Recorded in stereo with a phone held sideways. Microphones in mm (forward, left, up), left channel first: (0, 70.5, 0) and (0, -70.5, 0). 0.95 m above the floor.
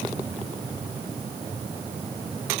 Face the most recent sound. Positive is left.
No sound to turn to.